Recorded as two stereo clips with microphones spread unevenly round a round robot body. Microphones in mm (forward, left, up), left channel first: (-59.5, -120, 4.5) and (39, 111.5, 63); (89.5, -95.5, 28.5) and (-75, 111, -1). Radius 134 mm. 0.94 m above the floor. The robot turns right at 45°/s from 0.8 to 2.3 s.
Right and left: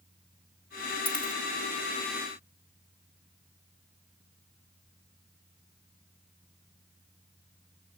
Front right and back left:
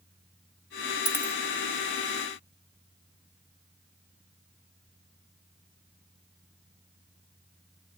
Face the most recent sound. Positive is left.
turn(degrees=55)